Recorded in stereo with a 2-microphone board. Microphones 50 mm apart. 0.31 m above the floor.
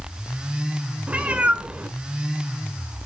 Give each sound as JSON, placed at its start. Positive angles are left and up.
{"t": 1.1, "sound": "a cat meowing", "side_deg": -25, "distance_m": 1.7}